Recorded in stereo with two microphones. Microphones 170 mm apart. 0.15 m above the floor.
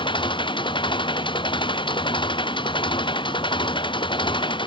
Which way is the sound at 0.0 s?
25° left (ahead or behind).